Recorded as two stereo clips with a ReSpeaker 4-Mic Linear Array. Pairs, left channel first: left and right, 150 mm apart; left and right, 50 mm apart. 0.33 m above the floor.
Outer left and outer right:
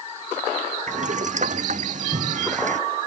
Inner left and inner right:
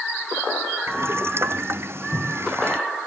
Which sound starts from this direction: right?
Boiling, at 0.9 s.